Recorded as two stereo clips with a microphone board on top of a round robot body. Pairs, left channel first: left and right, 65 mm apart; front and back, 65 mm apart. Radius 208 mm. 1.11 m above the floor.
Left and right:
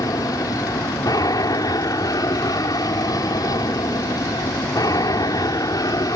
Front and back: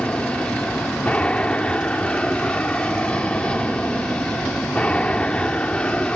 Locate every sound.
0.0 s an aircraft: 75° left